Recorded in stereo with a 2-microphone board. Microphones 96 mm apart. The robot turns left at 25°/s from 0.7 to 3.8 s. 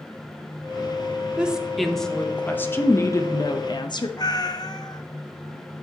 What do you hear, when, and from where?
1.4 s a woman speaking: 170° right, 0.6 m; by 4.1 s 130° left, 0.6 m
4.2 s a cat meowing: 45° left (ahead or behind), 0.5 m